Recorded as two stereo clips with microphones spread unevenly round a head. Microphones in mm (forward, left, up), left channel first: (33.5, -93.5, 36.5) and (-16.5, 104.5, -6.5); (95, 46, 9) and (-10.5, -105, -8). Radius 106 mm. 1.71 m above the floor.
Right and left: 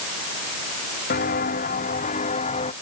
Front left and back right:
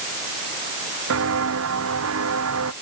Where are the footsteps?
125° right; by 2.7 s 135° right.